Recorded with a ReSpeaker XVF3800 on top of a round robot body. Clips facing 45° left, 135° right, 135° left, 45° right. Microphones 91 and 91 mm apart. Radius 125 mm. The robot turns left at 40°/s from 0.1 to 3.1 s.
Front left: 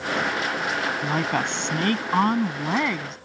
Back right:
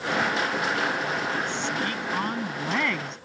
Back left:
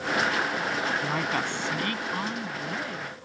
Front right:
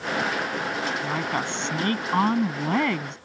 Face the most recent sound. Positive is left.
turn(degrees=-40)